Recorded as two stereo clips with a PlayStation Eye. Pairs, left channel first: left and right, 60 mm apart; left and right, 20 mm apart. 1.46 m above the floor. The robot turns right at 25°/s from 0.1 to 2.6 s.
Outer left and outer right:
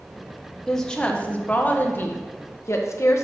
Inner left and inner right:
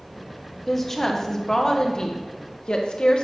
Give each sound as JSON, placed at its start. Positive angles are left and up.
{"t": 0.7, "sound": "a woman speaking", "azimuth_deg": 5, "distance_m": 1.2}